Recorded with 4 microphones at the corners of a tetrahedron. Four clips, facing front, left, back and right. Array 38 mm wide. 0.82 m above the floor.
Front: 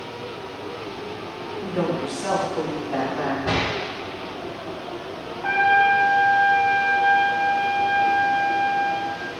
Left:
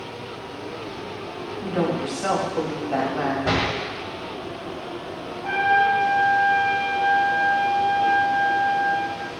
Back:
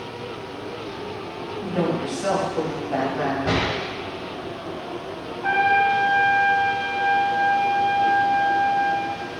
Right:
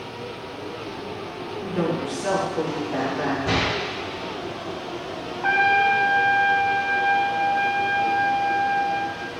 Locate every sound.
1.6 s a woman speaking: 105° left, 4 m
3.5 s a door slam: 100° left, 3.5 m
5.4 s a trumpet: 100° right, 1.5 m